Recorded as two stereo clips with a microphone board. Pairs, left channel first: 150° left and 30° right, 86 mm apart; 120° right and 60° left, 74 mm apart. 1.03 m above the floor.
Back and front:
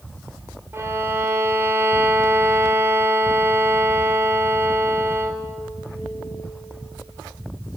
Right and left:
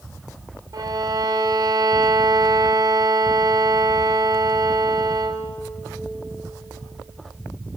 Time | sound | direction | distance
0.7 | a violin | 30° left | 2.0 m